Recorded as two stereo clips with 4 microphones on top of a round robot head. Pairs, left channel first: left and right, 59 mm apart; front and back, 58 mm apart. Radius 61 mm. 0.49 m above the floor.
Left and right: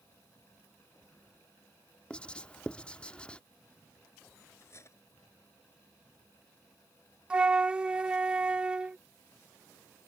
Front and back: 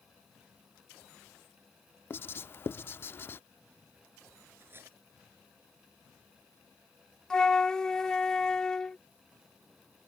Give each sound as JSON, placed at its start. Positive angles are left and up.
{"t": 2.1, "sound": "writing", "azimuth_deg": 20}
{"t": 4.6, "sound": "cutlery clinking", "azimuth_deg": 130}
{"t": 7.3, "sound": "a flute", "azimuth_deg": -55}